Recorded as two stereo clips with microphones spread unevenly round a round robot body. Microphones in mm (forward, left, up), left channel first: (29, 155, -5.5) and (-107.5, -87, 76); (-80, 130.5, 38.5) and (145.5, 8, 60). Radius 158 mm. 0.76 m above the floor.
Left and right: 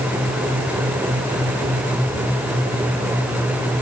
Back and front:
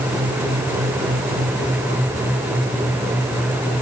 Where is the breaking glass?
No breaking glass in this recording.